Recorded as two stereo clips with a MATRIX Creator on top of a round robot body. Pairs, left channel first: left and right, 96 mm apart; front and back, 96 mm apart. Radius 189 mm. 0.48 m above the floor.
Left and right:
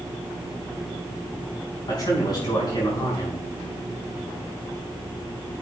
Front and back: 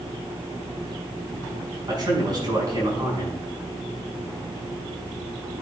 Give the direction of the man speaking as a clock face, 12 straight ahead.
7 o'clock.